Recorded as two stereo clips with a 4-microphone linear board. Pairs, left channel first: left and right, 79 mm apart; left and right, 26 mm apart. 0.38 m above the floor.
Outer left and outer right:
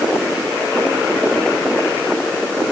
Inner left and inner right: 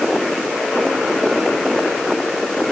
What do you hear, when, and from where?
Only background noise.